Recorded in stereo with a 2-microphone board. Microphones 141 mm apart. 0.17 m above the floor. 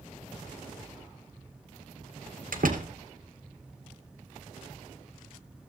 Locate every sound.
2.5 s a door slam: 70° right (ahead or behind), 2.5 m